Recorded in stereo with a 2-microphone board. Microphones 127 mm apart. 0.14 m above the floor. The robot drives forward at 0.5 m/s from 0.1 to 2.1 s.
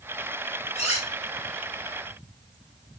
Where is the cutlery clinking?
60° left (ahead or behind), 1.4 m; by 1.1 s 65° left (ahead or behind), 1.3 m.